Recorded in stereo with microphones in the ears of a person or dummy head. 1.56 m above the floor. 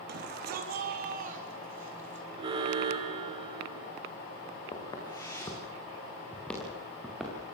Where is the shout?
55° right (ahead or behind), 3 m; by 2.3 s 40° right (ahead or behind), 4.5 m.